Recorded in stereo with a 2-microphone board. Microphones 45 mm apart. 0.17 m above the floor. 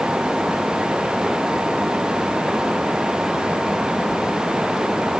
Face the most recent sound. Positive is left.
No sound to turn to.